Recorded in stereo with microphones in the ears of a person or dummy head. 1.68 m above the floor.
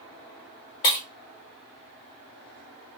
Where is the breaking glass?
25° left (ahead or behind), 1.5 m.